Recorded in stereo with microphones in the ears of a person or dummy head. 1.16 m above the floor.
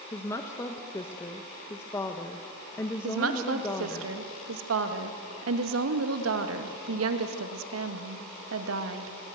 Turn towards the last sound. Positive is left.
turn(degrees=-75)  # may be behind; listen again after turning